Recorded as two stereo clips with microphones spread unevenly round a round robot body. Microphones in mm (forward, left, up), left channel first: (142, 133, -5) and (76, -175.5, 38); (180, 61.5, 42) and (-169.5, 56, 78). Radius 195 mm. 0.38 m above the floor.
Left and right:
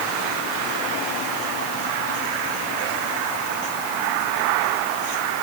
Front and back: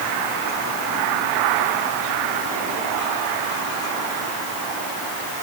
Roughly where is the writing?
No writing in this recording.